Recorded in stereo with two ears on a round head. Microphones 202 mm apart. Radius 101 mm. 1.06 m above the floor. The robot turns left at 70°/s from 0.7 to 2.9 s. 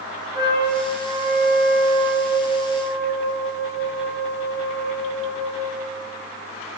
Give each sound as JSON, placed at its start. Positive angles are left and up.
{"t": 0.3, "sound": "a trumpet", "azimuth_deg": -20, "distance_m": 2.5}